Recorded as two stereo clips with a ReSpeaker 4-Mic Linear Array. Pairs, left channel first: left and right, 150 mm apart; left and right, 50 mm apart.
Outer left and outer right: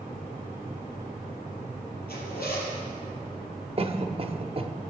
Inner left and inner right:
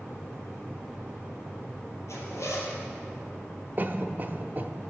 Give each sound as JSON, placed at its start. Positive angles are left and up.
{"t": 2.1, "sound": "a zipper", "side_deg": 90, "distance_m": 4.0}
{"t": 3.8, "sound": "a cough", "side_deg": -40, "distance_m": 0.9}